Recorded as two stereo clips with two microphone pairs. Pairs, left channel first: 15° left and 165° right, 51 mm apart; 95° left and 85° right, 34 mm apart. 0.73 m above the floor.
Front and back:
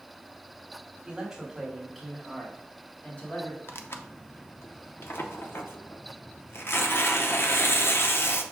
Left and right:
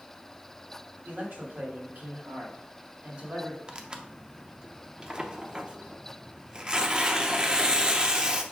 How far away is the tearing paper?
About 0.5 m.